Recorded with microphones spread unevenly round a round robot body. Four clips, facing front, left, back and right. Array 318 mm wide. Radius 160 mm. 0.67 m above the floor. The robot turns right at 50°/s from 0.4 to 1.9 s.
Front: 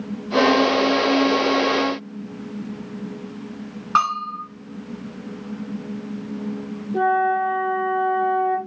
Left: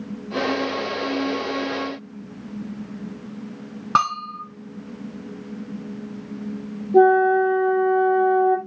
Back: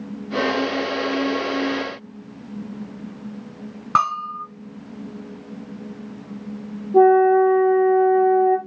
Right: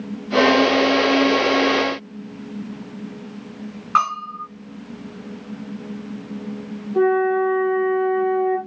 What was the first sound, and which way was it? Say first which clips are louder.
A bell: right 1 dB, even; 120° left.